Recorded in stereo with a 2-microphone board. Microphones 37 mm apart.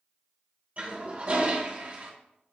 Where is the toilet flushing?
40° right (ahead or behind), 1.1 m.